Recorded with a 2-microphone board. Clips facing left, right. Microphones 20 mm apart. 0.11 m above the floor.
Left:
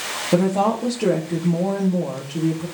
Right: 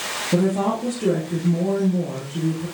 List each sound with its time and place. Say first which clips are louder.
0.3 s a woman speaking: left 2 dB; 50° left (ahead or behind), 2.5 m